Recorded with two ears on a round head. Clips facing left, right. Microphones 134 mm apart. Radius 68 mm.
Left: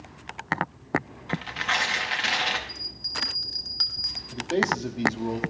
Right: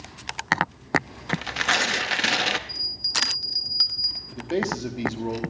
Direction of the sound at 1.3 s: 50° right (ahead or behind).